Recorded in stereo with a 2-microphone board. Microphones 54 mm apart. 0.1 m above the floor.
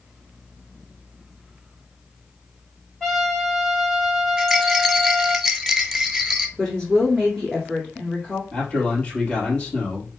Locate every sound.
3.0 s a trumpet: 10° left (ahead or behind), 3 m
4.4 s a rattle: 5° right (ahead or behind), 0.8 m
6.6 s a woman speaking: 10° left (ahead or behind), 1.5 m
8.5 s a man speaking: 20° left (ahead or behind), 2.5 m